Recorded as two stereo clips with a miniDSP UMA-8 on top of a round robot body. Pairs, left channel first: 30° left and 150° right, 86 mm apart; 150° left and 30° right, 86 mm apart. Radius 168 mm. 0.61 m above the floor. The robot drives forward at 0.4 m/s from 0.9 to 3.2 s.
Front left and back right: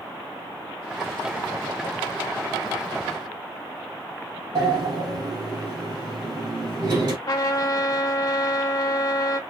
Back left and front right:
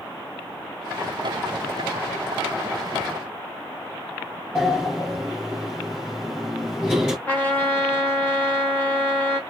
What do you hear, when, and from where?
4.5 s a sliding door: 125° right, 4 m
7.3 s a trumpet: 80° left, 0.7 m